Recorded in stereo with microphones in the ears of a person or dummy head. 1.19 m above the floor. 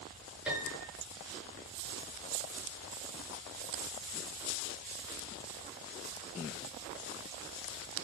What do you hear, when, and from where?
0.5 s a piano: 10° right (ahead or behind), 7.5 m